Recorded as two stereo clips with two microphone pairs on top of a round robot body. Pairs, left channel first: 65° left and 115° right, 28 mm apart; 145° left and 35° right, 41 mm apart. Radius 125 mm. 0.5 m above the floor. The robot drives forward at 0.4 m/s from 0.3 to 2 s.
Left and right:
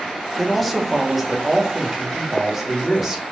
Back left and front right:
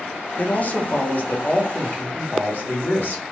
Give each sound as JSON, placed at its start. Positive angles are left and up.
{"t": 0.4, "sound": "a man speaking", "azimuth_deg": 155, "distance_m": 0.7}